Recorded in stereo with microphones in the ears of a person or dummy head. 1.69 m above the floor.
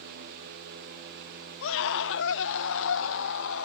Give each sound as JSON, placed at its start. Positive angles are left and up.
{"t": 1.6, "sound": "a scream", "side_deg": 70}